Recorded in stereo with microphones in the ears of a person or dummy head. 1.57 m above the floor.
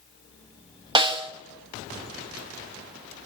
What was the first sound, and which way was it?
A snare drum, 30° right (ahead or behind).